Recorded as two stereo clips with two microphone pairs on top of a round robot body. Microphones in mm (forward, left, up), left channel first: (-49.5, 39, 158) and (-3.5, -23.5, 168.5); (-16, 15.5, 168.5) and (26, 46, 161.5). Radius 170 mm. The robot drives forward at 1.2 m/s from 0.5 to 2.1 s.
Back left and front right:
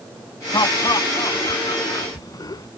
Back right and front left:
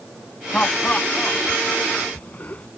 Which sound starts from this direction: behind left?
Laughter, at 0.5 s.